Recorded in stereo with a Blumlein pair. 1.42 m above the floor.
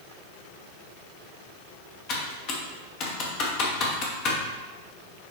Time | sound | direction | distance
2.1 | typing on a keyboard | 40° left | 1.4 m